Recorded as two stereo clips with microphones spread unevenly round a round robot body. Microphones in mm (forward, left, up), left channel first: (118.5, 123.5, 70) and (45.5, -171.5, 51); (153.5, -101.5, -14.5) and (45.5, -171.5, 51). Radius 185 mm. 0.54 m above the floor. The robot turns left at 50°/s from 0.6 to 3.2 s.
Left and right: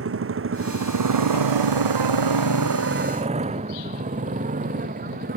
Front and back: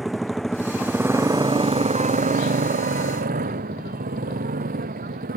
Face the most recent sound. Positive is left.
turn(degrees=-170)